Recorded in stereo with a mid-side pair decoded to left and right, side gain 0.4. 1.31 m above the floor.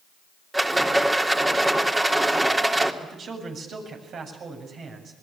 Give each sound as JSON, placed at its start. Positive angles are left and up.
{"t": 0.5, "sound": "a rattle", "azimuth_deg": -15, "distance_m": 3.0}
{"t": 3.0, "sound": "a man speaking", "azimuth_deg": -60, "distance_m": 7.5}